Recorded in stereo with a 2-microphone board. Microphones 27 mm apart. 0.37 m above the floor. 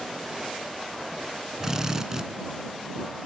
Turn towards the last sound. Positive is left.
turn(degrees=-25)  # may be behind; listen again after turning